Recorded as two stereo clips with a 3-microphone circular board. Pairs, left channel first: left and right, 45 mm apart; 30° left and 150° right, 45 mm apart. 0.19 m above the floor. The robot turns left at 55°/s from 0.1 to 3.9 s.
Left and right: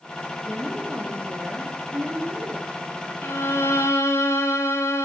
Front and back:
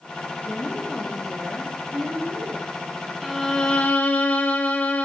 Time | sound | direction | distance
0.4 | a woman speaking | 25° right | 7 m
3.2 | a violin | 125° left | 5 m